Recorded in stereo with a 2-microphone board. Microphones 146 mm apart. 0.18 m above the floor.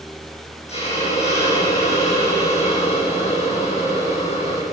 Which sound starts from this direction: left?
A hiss, at 0.7 s.